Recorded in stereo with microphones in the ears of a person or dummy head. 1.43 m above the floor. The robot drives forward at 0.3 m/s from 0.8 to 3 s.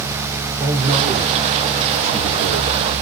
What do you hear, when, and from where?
0.6 s a man speaking: 25° right (ahead or behind), 2.5 m; by 2.7 s 30° right (ahead or behind), 2 m